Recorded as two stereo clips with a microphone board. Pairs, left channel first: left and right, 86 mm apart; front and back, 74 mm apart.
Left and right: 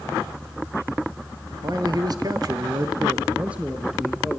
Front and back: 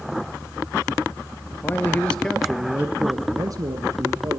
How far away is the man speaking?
About 2.5 m.